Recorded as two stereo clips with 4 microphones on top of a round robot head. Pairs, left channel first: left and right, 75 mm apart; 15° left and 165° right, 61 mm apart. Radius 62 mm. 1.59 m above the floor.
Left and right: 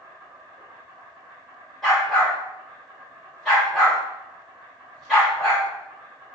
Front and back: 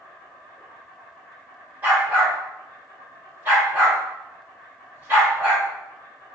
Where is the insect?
45° right, 1.9 m.